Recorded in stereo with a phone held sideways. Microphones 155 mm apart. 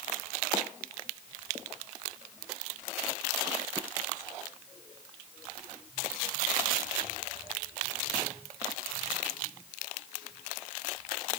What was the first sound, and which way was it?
Only background noise.